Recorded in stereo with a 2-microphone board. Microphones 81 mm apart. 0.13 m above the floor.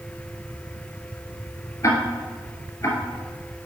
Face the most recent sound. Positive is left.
turn(degrees=35)  # may be behind; listen again after turning